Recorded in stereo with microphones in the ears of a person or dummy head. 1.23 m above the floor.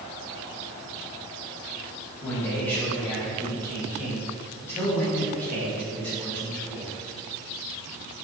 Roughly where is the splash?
No splash in this recording.